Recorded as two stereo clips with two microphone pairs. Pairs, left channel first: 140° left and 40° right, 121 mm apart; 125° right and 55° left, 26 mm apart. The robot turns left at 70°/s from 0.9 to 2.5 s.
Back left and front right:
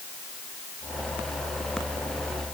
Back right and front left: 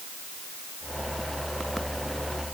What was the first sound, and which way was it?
Only background noise.